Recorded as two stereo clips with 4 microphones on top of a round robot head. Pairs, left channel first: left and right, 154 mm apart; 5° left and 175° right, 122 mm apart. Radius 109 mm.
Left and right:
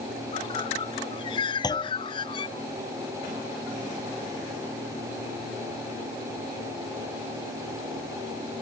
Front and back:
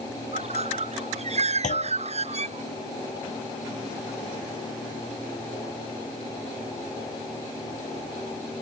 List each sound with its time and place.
0.3 s a bird: 155° left
1.6 s a clunk: 25° left